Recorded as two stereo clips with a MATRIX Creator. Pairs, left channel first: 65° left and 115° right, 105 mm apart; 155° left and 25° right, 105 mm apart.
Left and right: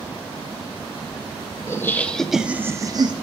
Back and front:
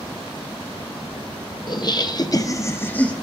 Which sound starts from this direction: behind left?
Laughter, at 1.7 s.